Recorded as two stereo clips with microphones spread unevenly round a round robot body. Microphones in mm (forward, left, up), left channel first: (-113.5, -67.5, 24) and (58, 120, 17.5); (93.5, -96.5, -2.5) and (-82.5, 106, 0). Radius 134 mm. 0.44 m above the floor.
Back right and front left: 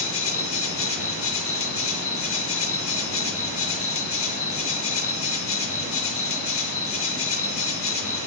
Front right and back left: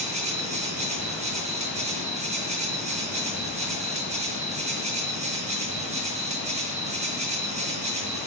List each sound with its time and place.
0.0 s an insect: 165° right, 0.8 m